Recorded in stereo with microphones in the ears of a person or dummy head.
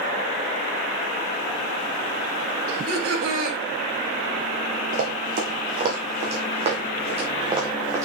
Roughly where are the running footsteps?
Right.